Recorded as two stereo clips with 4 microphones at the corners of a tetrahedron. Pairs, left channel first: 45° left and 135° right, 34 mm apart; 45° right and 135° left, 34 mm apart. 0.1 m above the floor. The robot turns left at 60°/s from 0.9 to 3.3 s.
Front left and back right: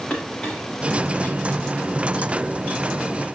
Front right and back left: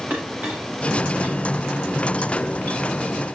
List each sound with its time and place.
0.1 s a clink: 105° left, 10 m; by 3.2 s 35° right, 10 m